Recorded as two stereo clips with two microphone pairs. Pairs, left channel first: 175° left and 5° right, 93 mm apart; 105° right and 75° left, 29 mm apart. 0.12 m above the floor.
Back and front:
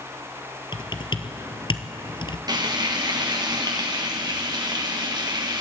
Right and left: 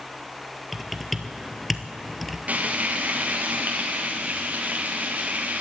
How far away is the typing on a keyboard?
About 1.1 m.